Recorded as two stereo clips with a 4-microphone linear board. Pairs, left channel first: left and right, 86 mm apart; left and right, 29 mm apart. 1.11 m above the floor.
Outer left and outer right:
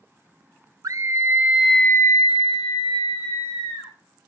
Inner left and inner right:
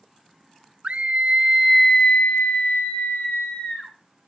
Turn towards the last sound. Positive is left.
turn(degrees=70)  # may be behind; listen again after turning